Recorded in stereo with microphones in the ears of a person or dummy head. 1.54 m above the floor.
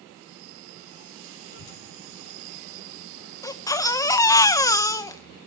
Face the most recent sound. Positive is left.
turn(degrees=25)  # may be behind; listen again after turning